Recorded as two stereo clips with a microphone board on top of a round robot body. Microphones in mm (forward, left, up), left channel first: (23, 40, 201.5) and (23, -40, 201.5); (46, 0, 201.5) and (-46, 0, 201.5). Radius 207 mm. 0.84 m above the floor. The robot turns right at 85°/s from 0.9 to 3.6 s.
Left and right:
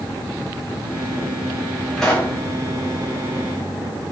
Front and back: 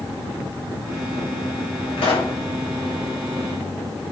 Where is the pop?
Straight ahead, 2.5 m; by 2.4 s 35° left, 2.5 m.